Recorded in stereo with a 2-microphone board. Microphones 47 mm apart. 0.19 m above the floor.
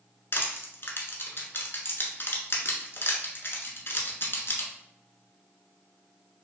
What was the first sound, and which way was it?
Crushing, 55° left (ahead or behind).